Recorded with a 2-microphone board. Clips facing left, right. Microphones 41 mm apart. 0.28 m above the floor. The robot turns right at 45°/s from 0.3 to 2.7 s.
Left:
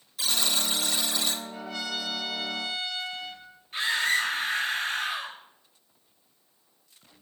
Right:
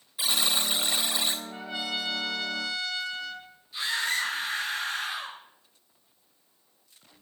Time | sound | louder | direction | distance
0.2 | a buzzer | right 1 dB | 20° right (ahead or behind) | 1.3 m
1.5 | a trumpet | right 1 dB | 30° right | 1.8 m
3.7 | a scream | left 3 dB | 50° left (ahead or behind) | 6 m